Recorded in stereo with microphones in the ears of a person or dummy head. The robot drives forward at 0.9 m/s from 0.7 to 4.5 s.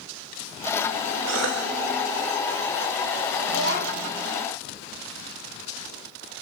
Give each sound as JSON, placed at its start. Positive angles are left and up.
{"t": 1.3, "sound": "a cough", "side_deg": -70, "distance_m": 1.3}
{"t": 3.5, "sound": "a child speaking", "side_deg": -80, "distance_m": 6.5}